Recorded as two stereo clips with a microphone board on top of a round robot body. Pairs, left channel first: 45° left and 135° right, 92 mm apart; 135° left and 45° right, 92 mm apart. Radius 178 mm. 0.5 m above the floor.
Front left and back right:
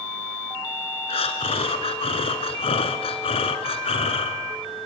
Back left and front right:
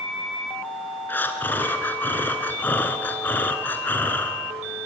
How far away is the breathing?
About 1.3 m.